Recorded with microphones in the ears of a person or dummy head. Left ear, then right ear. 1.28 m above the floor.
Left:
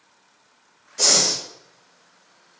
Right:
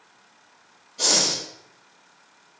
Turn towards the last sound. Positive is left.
turn(degrees=50)  # may be behind; listen again after turning